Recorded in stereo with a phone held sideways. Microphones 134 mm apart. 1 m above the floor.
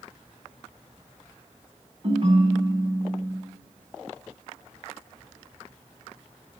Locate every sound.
2.0 s a ringtone: 45° right (ahead or behind), 3 m